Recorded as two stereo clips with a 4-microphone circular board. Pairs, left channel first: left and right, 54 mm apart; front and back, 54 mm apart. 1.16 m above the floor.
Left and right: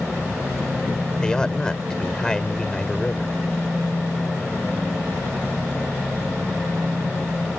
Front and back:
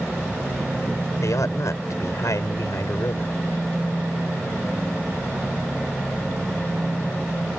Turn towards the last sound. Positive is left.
turn(degrees=15)